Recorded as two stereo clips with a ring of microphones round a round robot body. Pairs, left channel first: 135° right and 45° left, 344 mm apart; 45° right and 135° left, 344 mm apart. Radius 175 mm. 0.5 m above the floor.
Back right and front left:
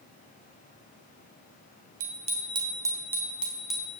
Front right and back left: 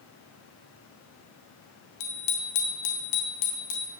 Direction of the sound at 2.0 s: 20° right.